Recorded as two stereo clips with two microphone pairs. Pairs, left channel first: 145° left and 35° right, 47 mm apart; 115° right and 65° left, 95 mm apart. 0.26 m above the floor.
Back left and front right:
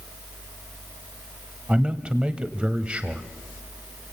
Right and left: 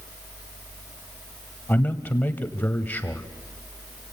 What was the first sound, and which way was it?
A man speaking, 65° right.